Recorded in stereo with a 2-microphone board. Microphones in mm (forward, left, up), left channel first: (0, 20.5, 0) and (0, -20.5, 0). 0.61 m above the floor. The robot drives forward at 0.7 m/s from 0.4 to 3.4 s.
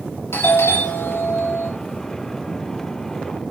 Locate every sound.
0.3 s a doorbell: 75° left (ahead or behind), 5 m; by 1.7 s 80° left, 5 m